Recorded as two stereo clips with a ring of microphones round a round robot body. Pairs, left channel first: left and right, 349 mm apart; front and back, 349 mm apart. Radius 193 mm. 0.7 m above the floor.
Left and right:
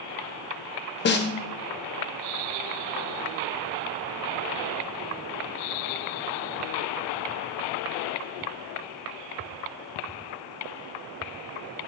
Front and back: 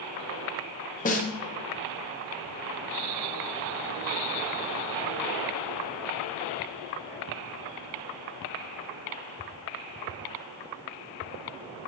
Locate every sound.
1.1 s a snare drum: 55° left, 0.8 m